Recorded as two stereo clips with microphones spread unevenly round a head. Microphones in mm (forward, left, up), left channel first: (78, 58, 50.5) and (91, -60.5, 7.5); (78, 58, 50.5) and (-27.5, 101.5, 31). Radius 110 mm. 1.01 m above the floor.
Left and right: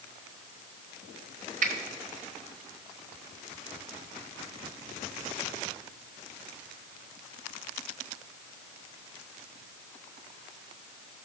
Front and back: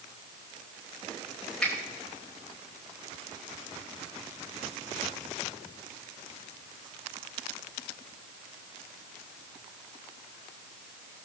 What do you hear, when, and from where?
1.6 s a finger snap: 110° right, 1.1 m